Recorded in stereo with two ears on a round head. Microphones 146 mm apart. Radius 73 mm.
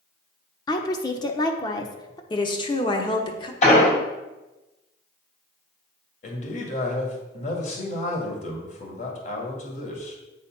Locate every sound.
0.7 s a woman speaking: 25° left (ahead or behind), 0.9 m
2.3 s a woman speaking: 30° left (ahead or behind), 1.1 m
3.6 s an explosion: 45° left (ahead or behind), 3 m
6.2 s a man speaking: 45° left (ahead or behind), 2 m